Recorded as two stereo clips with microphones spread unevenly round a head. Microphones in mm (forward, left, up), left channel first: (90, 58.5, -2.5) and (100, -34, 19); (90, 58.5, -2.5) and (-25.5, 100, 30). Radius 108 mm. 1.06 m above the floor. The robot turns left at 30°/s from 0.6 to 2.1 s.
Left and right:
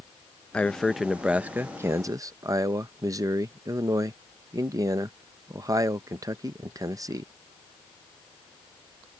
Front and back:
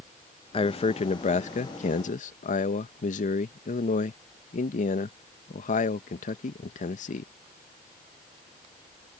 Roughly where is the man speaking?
Ahead.